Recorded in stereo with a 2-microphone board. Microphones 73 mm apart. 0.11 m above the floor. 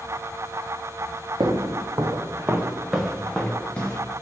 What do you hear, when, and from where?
1.4 s footsteps: 75° right (ahead or behind), 0.7 m; by 4.0 s 20° left (ahead or behind), 1.1 m